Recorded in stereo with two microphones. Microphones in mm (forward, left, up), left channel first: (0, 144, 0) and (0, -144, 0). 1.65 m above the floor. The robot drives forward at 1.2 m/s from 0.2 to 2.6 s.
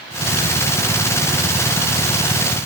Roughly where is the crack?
No crack in this recording.